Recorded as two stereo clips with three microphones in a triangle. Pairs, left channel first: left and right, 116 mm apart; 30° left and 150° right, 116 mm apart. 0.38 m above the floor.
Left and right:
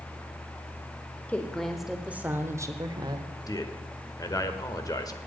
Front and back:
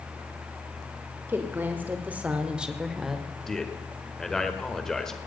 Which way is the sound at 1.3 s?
155° left.